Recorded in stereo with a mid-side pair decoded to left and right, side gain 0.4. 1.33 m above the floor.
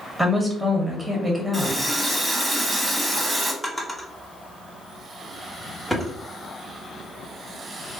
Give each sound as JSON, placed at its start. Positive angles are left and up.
{"t": 0.2, "sound": "a woman speaking", "azimuth_deg": 0, "distance_m": 1.4}
{"t": 1.5, "sound": "a running tap", "azimuth_deg": -15, "distance_m": 1.2}
{"t": 3.6, "sound": "a drawer", "azimuth_deg": 10, "distance_m": 1.4}